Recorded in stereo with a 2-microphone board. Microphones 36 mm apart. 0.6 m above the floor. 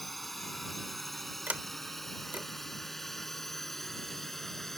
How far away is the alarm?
No alarm in this recording.